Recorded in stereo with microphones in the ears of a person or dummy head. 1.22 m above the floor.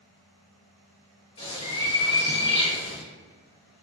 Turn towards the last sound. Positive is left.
turn(degrees=55)  # may be behind; listen again after turning